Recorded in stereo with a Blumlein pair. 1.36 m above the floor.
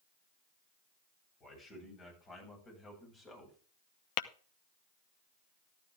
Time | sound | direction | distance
1.4 | a man speaking | 25° left | 9 m
4.2 | tapping | 45° left | 0.7 m